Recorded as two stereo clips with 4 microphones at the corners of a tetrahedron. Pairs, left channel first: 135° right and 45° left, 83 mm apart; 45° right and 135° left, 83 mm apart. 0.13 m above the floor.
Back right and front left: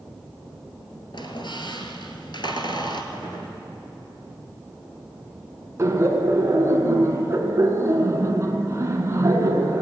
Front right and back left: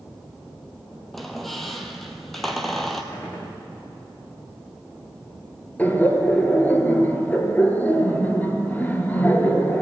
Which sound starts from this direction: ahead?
Laughter, at 5.8 s.